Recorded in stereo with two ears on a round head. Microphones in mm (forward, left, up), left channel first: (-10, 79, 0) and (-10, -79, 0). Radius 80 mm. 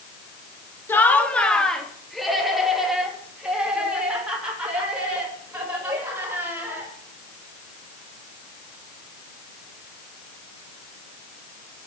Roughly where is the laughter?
Centre.